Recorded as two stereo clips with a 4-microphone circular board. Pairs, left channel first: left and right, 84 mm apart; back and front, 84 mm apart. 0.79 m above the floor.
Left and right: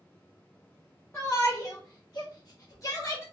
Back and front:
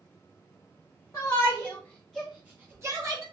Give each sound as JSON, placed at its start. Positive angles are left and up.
{"t": 1.1, "sound": "a shout", "azimuth_deg": 145, "distance_m": 0.8}